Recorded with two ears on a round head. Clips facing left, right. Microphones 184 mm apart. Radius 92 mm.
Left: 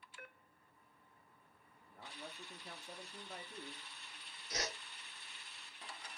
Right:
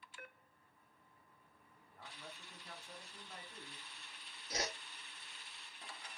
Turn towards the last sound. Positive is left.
turn(degrees=-25)  # may be behind; listen again after turning